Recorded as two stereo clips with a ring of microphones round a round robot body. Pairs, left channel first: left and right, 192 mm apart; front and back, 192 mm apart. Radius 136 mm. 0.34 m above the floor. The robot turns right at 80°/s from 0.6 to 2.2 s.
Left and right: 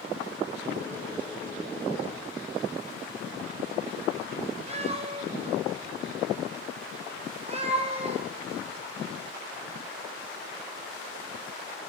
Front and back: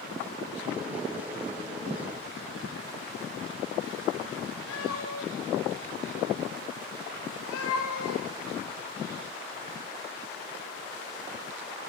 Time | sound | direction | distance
4.7 | a cat meowing | 30° right | 4.5 m